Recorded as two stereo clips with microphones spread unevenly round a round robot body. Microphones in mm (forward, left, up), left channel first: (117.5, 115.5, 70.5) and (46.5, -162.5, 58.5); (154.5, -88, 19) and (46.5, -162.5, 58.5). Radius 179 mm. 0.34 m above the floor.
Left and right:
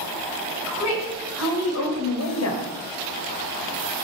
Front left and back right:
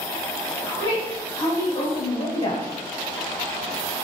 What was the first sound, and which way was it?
A woman speaking, 95° left.